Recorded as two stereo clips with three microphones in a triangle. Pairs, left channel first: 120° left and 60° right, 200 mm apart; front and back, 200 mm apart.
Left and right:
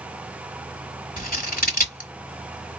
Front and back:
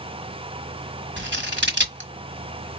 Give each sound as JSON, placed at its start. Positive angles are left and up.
{"t": 1.2, "sound": "scissors", "azimuth_deg": 160, "distance_m": 1.3}